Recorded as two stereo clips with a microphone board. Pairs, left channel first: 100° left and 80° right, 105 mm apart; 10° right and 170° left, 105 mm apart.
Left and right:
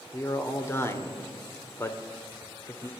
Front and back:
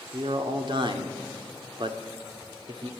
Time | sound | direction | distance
0.1 | a man speaking | 160° left | 1.7 m